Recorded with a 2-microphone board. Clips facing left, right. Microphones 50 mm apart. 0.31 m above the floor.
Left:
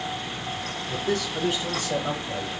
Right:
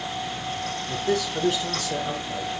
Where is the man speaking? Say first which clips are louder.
Right 2 dB; 5° right (ahead or behind), 2.0 m; by 2.5 s 50° left (ahead or behind), 1.4 m.